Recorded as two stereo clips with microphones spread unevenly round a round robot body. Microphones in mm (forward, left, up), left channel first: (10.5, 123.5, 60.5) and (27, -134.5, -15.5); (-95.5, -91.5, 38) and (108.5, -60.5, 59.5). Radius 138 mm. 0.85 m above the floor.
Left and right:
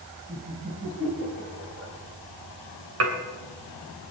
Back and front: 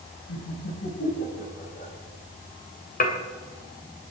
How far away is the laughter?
About 6 m.